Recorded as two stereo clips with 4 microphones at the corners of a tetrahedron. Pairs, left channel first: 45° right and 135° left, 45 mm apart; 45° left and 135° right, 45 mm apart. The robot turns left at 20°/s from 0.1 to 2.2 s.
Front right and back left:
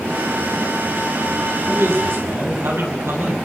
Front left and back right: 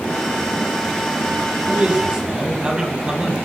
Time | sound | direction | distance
1.7 | a man speaking | 160° left | 6.5 m